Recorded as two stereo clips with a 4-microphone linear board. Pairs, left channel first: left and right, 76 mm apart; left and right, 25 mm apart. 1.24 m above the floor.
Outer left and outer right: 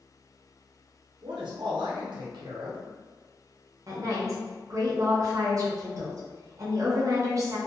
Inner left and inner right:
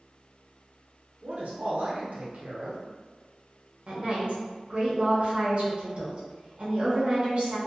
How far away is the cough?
No cough in this recording.